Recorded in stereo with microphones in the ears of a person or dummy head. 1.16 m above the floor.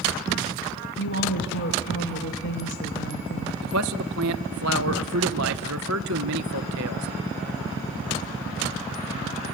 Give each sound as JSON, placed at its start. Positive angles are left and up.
{"t": 1.0, "sound": "a woman speaking", "side_deg": 65, "distance_m": 1.3}
{"t": 3.6, "sound": "a man speaking", "side_deg": -55, "distance_m": 0.9}